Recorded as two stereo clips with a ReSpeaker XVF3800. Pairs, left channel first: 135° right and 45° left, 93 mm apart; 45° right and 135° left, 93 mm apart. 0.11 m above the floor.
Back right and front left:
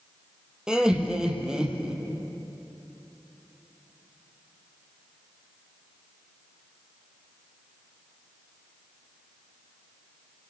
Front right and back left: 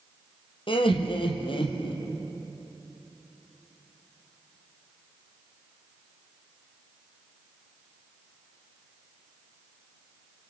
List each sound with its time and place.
0.7 s laughter: 35° right, 3.5 m